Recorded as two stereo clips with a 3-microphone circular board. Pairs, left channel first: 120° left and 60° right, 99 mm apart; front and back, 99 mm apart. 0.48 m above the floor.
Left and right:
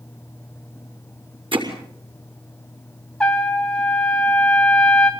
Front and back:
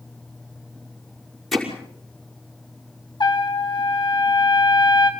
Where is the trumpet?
40° left, 2.5 m.